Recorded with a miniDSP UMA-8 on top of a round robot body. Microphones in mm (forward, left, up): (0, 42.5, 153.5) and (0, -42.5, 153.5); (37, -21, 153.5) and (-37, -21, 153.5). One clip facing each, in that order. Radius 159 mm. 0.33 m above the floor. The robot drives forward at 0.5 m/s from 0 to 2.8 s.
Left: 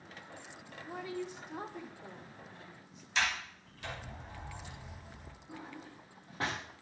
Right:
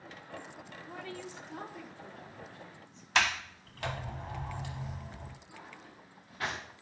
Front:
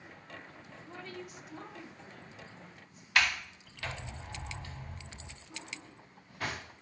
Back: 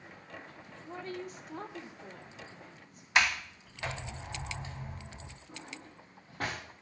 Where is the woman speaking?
150° left, 1.0 m; by 3.0 s 170° left, 1.7 m.